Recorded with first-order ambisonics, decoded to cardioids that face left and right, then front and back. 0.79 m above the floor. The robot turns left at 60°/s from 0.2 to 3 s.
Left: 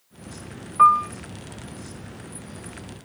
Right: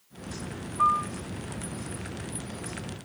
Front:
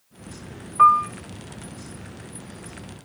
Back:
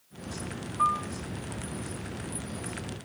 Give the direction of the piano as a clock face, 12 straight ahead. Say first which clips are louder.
Left 9 dB, front 12 dB; 11 o'clock.